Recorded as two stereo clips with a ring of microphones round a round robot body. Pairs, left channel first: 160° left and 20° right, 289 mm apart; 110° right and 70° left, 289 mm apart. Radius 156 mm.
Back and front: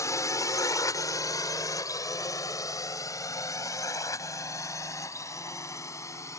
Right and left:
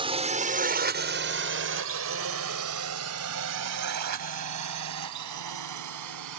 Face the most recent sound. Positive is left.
turn(degrees=80)